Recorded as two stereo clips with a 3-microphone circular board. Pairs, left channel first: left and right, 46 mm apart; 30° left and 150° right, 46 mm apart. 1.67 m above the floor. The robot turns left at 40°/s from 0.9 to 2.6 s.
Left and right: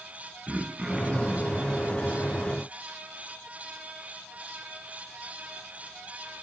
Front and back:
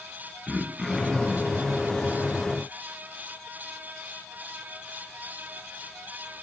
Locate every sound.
0.5 s throat clearing: 60° right, 1.0 m; by 1.6 s 90° right, 1.0 m